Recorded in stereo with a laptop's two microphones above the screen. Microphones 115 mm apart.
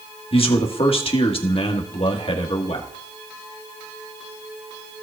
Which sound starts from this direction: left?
A man speaking, at 0.3 s.